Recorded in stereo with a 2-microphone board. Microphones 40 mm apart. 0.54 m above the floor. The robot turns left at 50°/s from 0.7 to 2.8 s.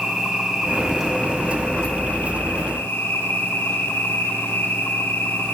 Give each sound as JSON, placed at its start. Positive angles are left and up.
{"t": 0.0, "sound": "an insect", "azimuth_deg": -155, "distance_m": 5.0}